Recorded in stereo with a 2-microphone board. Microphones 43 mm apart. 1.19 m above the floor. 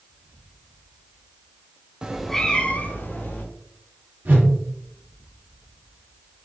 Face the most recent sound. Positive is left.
turn(degrees=-45)  # may be behind; listen again after turning